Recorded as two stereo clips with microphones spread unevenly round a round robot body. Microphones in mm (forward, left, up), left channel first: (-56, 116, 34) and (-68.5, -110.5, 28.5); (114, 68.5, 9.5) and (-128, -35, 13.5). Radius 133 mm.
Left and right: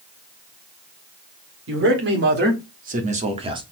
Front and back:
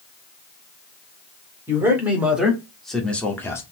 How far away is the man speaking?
About 2 m.